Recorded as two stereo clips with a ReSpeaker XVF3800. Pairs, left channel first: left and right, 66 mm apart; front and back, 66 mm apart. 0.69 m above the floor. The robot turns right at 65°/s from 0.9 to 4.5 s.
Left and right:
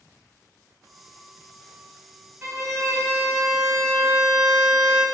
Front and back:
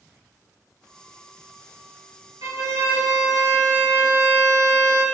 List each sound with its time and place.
2.4 s a violin: 155° right, 0.9 m; by 5.0 s 20° right, 0.9 m